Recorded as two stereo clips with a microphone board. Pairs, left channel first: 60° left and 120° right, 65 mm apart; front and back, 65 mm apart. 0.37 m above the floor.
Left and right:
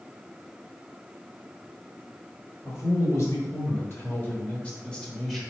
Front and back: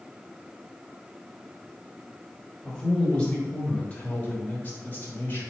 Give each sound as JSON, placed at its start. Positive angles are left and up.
{"t": 2.6, "sound": "a man speaking", "azimuth_deg": 75, "distance_m": 1.6}